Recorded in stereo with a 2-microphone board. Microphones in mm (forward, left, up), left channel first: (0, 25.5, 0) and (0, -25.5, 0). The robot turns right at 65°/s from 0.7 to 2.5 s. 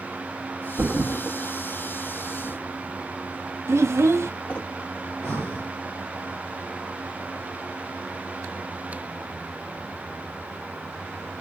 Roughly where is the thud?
Right.